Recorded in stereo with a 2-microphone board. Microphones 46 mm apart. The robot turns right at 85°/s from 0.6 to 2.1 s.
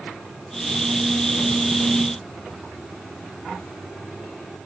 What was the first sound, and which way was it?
Only background noise.